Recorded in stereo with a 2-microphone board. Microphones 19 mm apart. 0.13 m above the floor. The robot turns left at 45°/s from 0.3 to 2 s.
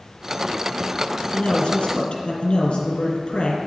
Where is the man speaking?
125° left, 2.5 m; by 3.6 s 95° left, 2.5 m.